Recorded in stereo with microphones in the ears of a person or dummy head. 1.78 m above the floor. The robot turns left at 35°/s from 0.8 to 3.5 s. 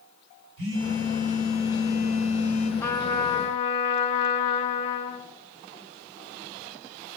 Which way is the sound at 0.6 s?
85° right.